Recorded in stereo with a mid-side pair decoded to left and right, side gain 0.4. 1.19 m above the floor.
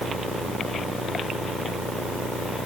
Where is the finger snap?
No finger snap in this recording.